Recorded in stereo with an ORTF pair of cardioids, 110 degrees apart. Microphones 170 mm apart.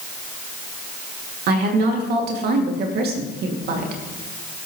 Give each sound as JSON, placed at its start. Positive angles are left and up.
{"t": 1.5, "sound": "a woman speaking", "azimuth_deg": -70, "distance_m": 2.5}